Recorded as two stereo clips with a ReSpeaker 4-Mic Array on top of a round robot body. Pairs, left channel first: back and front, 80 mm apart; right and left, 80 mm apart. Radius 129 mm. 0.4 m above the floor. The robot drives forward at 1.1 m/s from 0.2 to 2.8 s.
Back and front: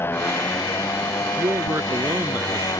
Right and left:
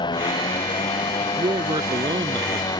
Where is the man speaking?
60° left; by 2.7 s 70° left.